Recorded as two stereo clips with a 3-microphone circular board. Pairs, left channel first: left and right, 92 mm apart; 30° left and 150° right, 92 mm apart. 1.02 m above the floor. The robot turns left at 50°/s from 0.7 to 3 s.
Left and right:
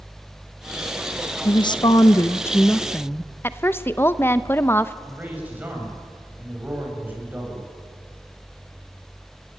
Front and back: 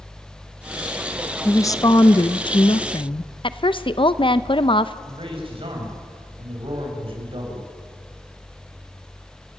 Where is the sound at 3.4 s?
30° left, 0.7 m.